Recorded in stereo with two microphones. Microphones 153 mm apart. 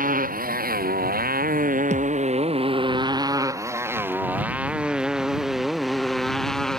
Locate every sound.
0.0 s a motorcycle: 70° right (ahead or behind); by 6.8 s 5° left (ahead or behind)
1.9 s a thud: 50° right (ahead or behind)